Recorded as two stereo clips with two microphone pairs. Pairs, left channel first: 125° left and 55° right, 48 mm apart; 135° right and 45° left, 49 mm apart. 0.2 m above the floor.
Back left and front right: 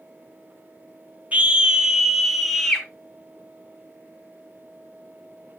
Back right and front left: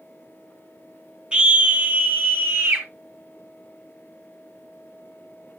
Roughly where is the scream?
Ahead.